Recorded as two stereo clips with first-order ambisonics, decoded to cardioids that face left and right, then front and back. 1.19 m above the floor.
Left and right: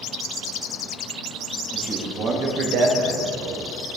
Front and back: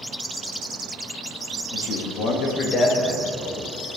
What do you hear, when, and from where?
1.7 s a man speaking: 20° right, 2 m; by 3.7 s 95° right, 2 m